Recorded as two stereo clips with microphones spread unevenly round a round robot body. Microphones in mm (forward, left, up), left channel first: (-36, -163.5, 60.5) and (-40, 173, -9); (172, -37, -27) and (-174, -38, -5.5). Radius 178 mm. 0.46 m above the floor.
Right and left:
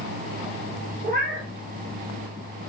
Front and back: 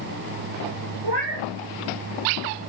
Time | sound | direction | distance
1.0 | a cat meowing | 155° left | 3.5 m